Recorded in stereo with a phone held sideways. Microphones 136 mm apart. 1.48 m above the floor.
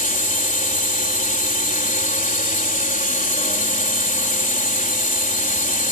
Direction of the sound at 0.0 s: 75° left (ahead or behind).